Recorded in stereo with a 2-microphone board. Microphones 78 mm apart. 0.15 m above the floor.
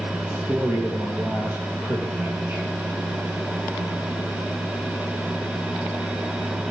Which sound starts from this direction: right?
A man speaking, at 0.3 s.